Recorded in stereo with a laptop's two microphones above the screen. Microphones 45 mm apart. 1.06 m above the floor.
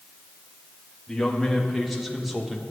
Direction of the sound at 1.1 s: 5° left (ahead or behind).